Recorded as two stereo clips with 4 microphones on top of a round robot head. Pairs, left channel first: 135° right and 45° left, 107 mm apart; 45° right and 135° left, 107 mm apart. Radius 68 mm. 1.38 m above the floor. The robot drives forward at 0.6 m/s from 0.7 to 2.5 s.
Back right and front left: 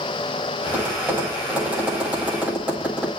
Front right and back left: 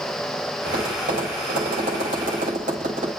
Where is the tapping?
120° left, 7.5 m; by 3.1 s 125° left, 8 m.